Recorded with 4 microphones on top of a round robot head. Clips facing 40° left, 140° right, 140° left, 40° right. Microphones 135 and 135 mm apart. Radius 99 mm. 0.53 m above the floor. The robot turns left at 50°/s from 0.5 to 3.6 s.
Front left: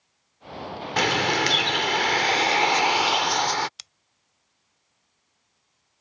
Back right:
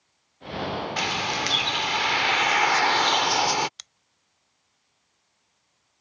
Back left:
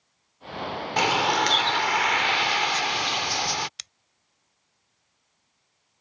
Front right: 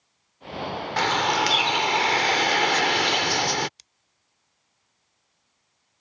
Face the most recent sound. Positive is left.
turn(degrees=125)